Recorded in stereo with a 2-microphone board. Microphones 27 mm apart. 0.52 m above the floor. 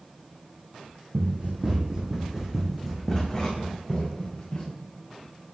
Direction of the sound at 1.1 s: 50° right (ahead or behind).